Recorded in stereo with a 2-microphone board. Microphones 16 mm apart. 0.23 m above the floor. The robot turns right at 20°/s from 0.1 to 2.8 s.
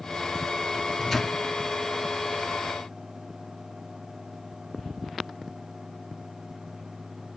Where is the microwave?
5° right (ahead or behind), 1.8 m; by 1.4 s 5° left (ahead or behind), 1.8 m.